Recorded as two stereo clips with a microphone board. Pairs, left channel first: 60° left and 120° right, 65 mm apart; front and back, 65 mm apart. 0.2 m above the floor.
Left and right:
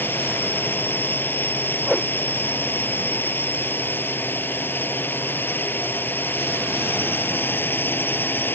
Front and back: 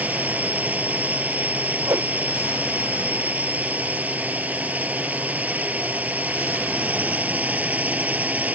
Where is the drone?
115° left.